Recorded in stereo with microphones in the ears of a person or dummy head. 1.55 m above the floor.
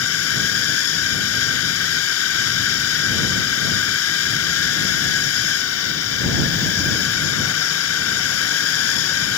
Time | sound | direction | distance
0.0 | a drone | 85° left | ?